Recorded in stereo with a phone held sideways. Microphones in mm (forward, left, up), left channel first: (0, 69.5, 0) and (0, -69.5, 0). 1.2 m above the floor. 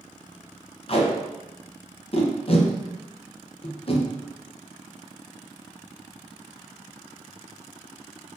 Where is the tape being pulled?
45° left (ahead or behind), 0.7 m.